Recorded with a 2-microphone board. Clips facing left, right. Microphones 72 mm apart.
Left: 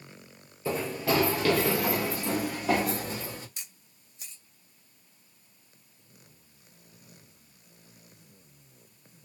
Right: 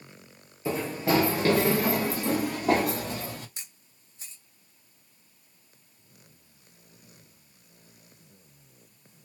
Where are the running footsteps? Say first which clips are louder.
Right 2 dB; 15° right (ahead or behind), 1.3 m; by 3.5 s 55° right (ahead or behind), 2.5 m.